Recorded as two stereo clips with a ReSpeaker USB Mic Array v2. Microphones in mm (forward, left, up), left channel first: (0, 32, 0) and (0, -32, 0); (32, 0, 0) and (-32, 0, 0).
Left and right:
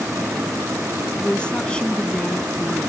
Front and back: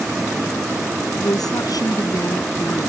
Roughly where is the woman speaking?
Ahead.